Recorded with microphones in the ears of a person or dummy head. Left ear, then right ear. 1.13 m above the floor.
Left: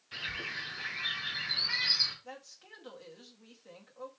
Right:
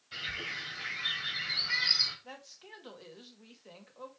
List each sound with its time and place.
0.1 s a bird: 10° left (ahead or behind), 3 m
2.2 s a woman speaking: 15° right (ahead or behind), 1.6 m